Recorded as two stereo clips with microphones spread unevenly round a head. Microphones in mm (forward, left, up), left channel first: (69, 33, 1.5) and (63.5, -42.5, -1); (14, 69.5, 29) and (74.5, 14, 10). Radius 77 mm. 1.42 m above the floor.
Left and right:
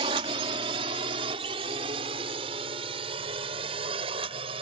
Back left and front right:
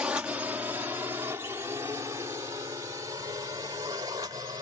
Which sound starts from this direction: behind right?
A drone, at 0.0 s.